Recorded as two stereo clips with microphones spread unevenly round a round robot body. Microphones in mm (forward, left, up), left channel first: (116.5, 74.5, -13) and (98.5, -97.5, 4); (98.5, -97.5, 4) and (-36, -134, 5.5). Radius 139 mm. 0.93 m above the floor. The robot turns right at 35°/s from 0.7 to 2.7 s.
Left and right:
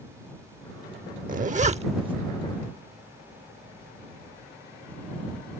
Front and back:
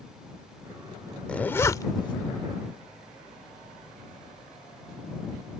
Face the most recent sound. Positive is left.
turn(degrees=-20)